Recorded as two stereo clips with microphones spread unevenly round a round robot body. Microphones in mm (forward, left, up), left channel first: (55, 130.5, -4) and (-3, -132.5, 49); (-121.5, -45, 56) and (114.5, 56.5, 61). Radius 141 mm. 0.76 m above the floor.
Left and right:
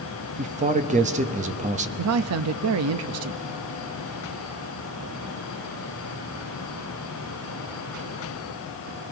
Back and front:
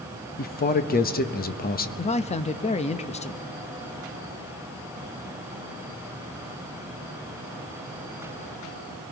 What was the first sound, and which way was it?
A man speaking, 165° right.